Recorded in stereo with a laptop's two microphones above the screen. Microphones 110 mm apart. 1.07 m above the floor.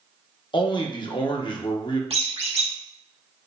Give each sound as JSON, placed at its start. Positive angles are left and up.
{"t": 0.5, "sound": "a man speaking", "side_deg": 45, "distance_m": 0.9}
{"t": 2.1, "sound": "a squeak", "side_deg": -65, "distance_m": 1.2}